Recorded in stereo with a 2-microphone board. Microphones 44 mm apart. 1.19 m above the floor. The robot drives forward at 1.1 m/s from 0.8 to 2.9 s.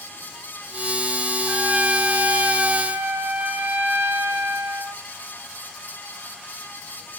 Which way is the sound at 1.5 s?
40° right (ahead or behind).